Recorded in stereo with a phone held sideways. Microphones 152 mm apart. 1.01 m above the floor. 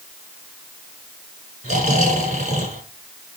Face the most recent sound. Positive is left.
turn(degrees=-55)  # may be behind; listen again after turning